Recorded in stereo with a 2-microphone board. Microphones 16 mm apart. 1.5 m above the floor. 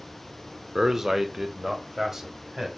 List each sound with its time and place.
0.8 s a man speaking: 30° right (ahead or behind), 0.5 m